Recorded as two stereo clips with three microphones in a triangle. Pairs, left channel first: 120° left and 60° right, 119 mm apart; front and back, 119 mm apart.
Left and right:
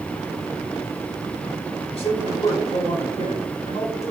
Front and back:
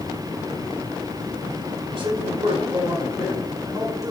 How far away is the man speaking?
About 3.5 m.